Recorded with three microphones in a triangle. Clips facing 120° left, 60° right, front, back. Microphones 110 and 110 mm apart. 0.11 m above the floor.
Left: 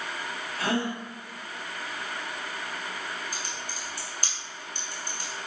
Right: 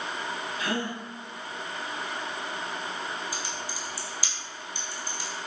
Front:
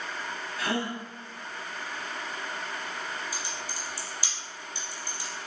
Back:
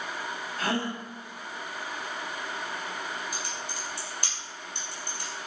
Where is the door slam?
I don't hear a door slam.